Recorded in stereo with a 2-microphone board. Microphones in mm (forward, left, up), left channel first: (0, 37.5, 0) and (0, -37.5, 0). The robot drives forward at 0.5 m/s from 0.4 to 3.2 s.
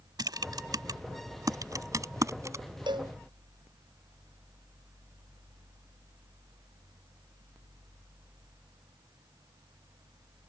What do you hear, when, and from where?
0.2 s typing on a keyboard: 65° right (ahead or behind); by 2.6 s 40° right (ahead or behind)
2.9 s a cowbell: 85° right